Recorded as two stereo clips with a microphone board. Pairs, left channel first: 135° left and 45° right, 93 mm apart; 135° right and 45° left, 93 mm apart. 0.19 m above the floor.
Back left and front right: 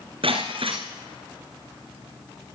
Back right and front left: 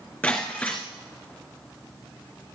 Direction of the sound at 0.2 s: 60° right.